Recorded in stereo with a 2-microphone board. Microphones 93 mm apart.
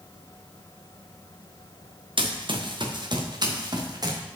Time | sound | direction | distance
2.2 | running footsteps | 65° right (ahead or behind) | 2 m